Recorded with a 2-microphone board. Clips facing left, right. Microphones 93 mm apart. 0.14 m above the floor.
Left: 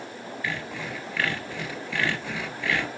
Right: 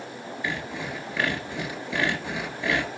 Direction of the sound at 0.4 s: 20° right (ahead or behind).